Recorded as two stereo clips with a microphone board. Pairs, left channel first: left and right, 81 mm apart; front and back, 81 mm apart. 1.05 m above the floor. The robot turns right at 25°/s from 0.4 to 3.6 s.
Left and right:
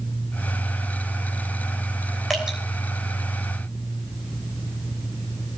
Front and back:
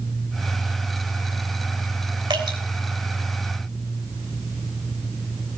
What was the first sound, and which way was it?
Dripping, straight behind.